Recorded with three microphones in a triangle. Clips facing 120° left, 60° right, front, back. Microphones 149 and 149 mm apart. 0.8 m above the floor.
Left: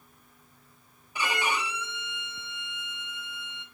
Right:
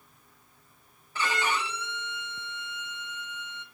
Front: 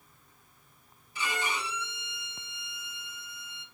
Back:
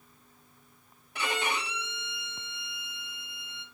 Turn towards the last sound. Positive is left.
turn(degrees=-165)